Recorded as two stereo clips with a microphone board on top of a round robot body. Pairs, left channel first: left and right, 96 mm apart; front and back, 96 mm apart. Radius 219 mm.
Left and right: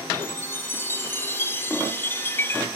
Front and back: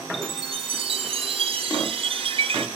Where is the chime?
160° left, 1.3 m.